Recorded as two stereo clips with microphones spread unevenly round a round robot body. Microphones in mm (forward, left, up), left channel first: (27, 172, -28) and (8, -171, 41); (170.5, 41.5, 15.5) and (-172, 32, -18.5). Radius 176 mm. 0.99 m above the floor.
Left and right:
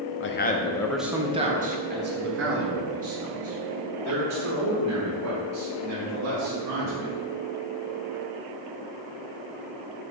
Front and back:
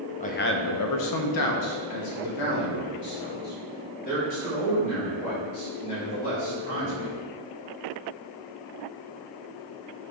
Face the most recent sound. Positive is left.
turn(degrees=-45)